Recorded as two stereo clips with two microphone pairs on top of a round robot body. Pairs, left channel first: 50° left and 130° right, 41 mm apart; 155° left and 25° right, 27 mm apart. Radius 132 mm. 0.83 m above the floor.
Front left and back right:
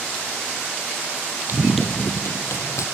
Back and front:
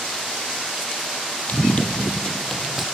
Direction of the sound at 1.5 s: 175° right.